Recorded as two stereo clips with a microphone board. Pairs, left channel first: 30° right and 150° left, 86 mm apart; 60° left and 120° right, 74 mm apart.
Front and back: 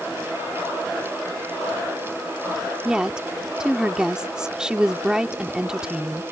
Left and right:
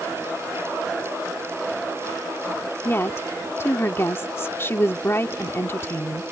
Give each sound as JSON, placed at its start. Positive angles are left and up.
{"t": 2.9, "sound": "a woman speaking", "azimuth_deg": 75}